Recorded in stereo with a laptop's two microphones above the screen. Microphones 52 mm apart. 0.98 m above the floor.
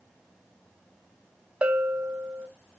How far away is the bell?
About 0.6 m.